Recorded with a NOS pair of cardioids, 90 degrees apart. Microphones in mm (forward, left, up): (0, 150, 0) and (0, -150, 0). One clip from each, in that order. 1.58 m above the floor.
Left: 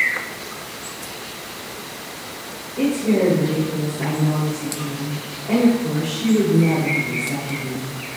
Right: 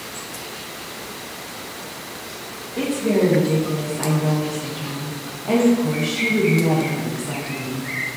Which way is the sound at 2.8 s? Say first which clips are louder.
Even; 65° right.